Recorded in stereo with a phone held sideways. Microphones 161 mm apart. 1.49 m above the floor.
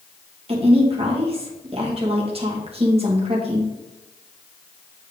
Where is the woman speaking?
40° right (ahead or behind), 1.6 m.